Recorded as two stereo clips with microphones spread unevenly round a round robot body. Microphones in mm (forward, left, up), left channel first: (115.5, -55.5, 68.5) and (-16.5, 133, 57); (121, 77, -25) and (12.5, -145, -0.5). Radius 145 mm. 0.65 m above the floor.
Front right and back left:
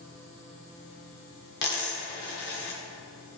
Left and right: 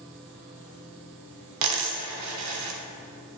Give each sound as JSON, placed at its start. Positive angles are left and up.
{"t": 1.6, "sound": "a dropped coin", "azimuth_deg": -105, "distance_m": 1.0}